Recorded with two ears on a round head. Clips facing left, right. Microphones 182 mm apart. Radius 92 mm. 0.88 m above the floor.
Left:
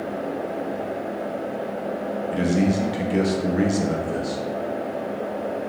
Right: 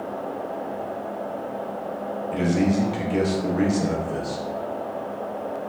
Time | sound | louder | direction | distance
2.3 | a man speaking | even | 10° left (ahead or behind) | 0.7 m